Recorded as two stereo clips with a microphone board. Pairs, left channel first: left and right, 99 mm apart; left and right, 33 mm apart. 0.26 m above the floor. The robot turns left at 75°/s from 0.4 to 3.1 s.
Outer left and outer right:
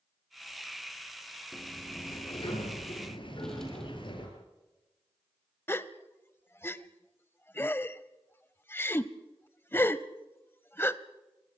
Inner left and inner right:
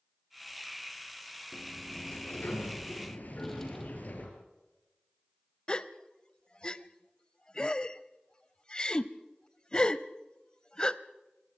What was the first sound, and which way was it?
A sliding door, straight behind.